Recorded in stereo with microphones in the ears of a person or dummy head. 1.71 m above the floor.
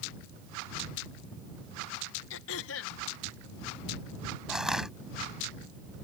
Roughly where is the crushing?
Centre.